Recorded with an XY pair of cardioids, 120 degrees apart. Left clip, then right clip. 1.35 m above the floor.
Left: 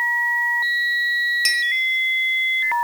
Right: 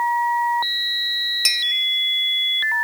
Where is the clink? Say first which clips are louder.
Right 3 dB; 20° right, 1.1 m.